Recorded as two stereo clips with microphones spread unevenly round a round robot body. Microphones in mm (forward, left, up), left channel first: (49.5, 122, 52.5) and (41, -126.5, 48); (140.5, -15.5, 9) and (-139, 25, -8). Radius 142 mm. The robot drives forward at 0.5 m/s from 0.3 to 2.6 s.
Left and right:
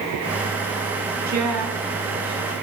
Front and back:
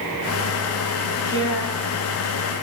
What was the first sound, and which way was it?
A woman speaking, 85° right.